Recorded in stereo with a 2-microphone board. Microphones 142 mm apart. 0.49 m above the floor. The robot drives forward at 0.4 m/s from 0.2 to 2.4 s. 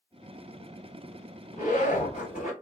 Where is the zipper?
75° left (ahead or behind), 1.6 m; by 2.5 s 65° left (ahead or behind), 1.7 m.